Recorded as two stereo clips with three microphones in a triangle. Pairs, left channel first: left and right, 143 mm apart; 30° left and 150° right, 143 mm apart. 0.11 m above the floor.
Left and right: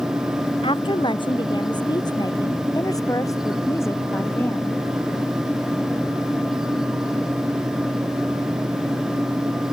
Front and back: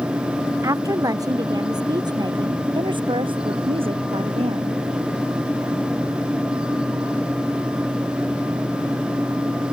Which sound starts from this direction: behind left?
A woman speaking, at 0.6 s.